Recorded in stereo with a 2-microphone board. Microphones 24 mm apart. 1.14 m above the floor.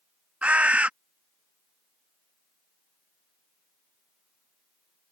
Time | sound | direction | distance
0.4 | a bird | 60° right (ahead or behind) | ?